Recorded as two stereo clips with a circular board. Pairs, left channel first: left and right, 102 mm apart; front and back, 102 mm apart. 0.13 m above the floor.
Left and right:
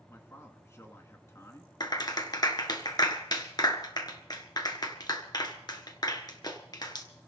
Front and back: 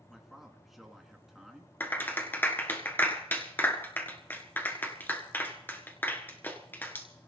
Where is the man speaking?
95° left, 1.8 m.